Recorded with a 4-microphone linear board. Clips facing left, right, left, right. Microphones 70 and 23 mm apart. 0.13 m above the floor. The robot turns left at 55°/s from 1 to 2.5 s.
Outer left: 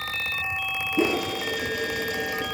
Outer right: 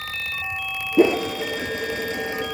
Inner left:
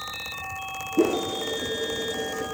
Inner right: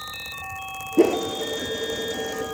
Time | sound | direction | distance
1.0 | a whoosh | 65° right (ahead or behind) | 0.6 m